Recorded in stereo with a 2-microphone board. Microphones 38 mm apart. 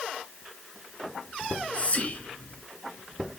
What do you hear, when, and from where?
1.4 s whispering: 40° left (ahead or behind), 1.7 m